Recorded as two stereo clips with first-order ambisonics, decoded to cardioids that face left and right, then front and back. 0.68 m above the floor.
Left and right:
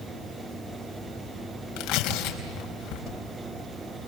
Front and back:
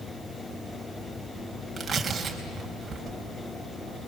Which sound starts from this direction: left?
Tearing paper, at 1.8 s.